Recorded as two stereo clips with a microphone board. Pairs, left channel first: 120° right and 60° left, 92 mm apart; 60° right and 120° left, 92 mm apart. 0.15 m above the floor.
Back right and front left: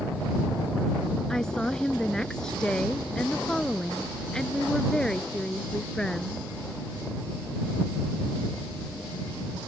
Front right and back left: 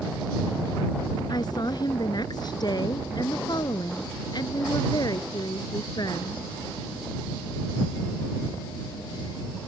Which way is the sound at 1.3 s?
40° right.